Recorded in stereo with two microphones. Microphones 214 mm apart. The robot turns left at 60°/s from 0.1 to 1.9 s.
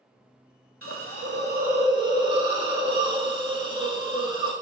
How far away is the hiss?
About 0.6 m.